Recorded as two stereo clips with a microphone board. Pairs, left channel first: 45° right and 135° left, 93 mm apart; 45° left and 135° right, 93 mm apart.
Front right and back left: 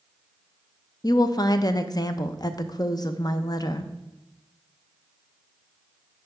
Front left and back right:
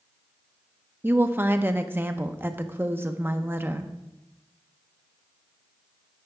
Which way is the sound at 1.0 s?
75° right.